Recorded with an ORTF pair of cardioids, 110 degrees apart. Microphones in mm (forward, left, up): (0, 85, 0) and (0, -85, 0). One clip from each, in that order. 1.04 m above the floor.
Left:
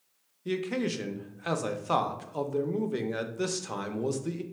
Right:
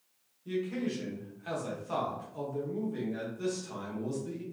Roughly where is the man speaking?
Ahead left.